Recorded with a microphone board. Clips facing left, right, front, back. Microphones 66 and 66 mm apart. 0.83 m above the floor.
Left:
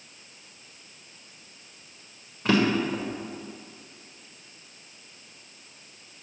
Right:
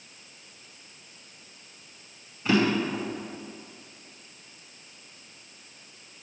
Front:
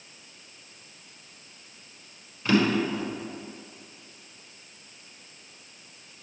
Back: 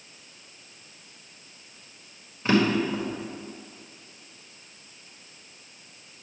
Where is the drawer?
115° left, 1.8 m.